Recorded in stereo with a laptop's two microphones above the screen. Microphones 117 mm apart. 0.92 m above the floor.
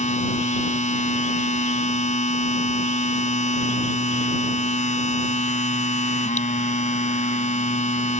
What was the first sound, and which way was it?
A machine running, 75° left (ahead or behind).